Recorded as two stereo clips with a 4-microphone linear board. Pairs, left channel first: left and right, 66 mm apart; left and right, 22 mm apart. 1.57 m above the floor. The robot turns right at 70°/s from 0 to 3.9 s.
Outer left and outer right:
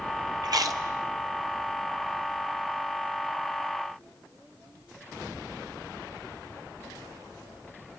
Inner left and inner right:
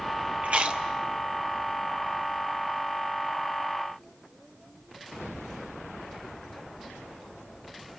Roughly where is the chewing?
Right.